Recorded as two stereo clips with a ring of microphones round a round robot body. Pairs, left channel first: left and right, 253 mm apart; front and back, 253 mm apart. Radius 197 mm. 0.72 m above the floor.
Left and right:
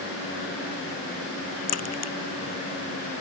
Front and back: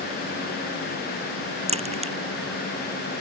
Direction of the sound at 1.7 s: 115° left.